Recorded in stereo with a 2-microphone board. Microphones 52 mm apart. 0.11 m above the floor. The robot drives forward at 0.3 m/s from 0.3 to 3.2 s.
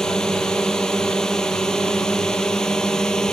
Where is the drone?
10° left (ahead or behind).